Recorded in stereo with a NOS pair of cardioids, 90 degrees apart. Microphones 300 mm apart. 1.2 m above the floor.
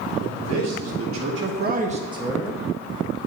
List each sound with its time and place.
0.2 s a man speaking: 65° right, 2.5 m; by 2.6 s straight ahead, 1.5 m